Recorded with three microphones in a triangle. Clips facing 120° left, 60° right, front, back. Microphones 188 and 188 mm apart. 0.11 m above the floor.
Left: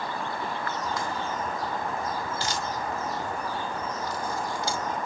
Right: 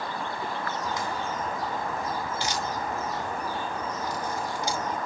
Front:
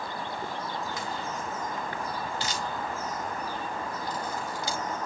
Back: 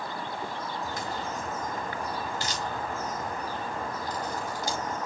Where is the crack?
130° right, 4 m.